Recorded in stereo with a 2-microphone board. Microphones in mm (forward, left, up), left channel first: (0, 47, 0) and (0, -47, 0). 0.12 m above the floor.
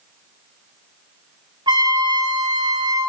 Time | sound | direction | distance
1.7 | a trumpet | 55° right (ahead or behind) | 1.0 m